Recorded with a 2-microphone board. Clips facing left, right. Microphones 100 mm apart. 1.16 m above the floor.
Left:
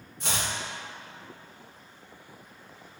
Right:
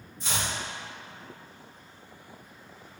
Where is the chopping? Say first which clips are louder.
Even; 70° left (ahead or behind), 1.8 m.